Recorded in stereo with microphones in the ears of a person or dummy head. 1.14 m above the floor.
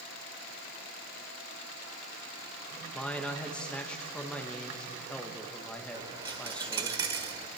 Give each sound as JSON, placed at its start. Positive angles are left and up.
{"t": 2.9, "sound": "a man speaking", "side_deg": 5, "distance_m": 1.5}
{"t": 5.9, "sound": "a dropped coin", "side_deg": -25, "distance_m": 1.5}